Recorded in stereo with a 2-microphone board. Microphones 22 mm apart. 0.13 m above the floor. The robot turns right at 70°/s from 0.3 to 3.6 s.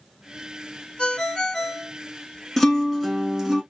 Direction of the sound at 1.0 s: 90° left.